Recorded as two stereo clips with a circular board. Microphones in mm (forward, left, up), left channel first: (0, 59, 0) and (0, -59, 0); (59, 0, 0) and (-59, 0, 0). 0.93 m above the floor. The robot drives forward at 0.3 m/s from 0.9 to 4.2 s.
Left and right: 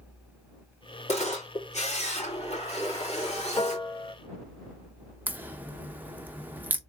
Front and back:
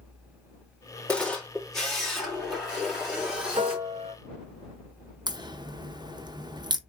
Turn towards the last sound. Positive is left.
turn(degrees=-155)